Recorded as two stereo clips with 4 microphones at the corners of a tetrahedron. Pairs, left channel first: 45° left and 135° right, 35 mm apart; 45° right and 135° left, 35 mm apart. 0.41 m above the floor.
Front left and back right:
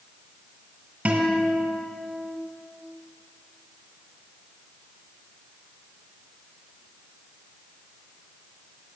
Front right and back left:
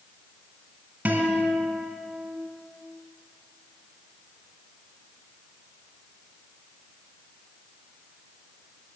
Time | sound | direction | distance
1.1 | a guitar | 175° right | 2 m